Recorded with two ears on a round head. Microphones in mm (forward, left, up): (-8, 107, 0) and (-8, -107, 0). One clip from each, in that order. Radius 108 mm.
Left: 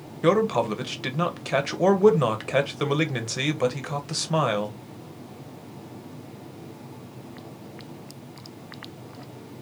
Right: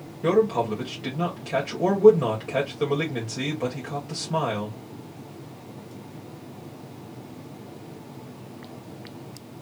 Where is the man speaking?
55° left (ahead or behind), 1.3 m.